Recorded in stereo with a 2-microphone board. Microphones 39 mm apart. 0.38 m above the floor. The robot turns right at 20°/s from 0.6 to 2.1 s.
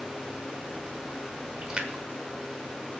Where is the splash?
20° right (ahead or behind), 1.4 m; by 3.0 s 25° right (ahead or behind), 1.4 m.